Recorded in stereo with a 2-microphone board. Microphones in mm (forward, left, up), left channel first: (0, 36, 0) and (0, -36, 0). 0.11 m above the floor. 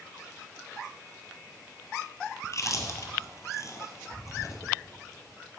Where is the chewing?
50° left (ahead or behind), 0.7 m.